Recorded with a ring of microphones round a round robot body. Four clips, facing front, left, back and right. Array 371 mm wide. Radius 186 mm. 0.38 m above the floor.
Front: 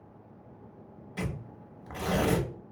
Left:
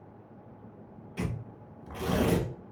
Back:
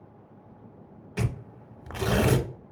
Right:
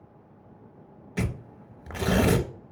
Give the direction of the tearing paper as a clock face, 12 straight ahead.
4 o'clock.